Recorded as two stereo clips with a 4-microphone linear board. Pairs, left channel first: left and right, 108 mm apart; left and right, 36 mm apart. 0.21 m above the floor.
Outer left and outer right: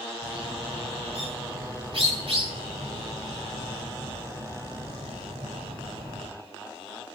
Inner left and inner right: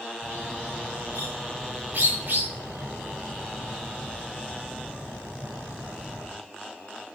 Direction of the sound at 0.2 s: 60° right (ahead or behind).